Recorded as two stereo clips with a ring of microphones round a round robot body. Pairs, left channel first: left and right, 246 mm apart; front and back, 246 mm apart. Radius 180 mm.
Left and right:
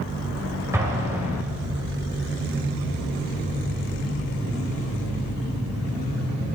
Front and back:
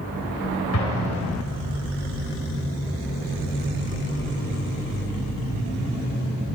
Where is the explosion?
10° right, 3.5 m.